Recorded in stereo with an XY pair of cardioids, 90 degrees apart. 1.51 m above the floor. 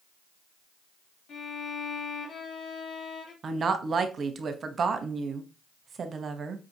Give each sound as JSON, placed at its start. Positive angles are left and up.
{"t": 1.3, "sound": "a violin", "azimuth_deg": 65, "distance_m": 1.8}
{"t": 3.4, "sound": "a woman speaking", "azimuth_deg": -50, "distance_m": 0.9}